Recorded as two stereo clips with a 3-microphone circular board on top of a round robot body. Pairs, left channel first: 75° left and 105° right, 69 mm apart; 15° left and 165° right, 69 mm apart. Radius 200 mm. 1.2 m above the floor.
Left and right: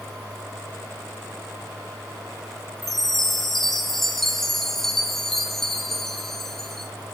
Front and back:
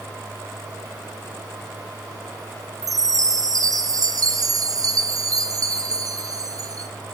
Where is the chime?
160° left, 0.7 m.